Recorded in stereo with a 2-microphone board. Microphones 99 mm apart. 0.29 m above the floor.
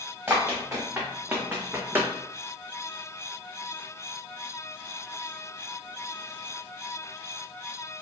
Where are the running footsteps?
20° right (ahead or behind), 1.6 m.